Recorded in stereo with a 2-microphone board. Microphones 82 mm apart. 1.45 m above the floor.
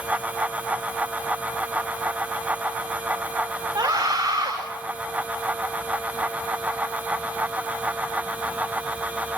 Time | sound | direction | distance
3.8 | a scream | 40° right (ahead or behind) | 5.5 m